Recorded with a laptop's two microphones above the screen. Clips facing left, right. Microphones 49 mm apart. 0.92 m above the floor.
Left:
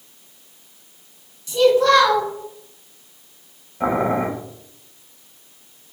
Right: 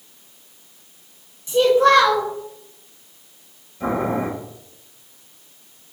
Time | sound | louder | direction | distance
1.5 | a child speaking | even | 30° right (ahead or behind) | 0.9 m
3.8 | boiling | left 2 dB | 35° left (ahead or behind) | 0.9 m